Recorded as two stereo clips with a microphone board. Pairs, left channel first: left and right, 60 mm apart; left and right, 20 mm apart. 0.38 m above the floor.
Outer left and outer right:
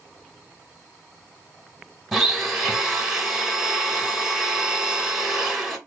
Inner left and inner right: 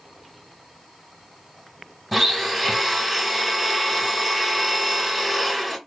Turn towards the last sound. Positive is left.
turn(degrees=0)  # may be behind; listen again after turning